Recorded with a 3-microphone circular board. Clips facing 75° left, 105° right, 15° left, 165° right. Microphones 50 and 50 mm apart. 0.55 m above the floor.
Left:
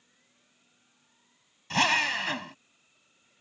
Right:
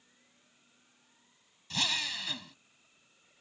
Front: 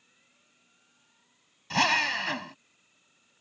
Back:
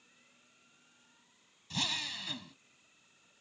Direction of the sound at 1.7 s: 35° left.